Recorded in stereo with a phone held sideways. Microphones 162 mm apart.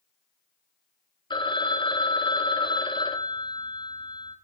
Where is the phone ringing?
30° left (ahead or behind), 1.0 m.